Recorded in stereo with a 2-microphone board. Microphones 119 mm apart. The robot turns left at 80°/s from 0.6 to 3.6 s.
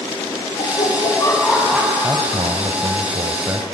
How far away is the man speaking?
About 1.3 m.